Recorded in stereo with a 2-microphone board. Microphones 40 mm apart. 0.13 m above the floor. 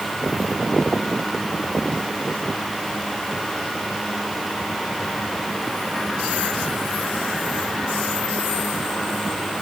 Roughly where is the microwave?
I don't hear a microwave.